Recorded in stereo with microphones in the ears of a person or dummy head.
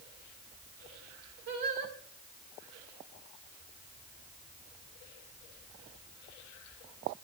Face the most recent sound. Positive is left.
turn(degrees=-55)  # may be behind; listen again after turning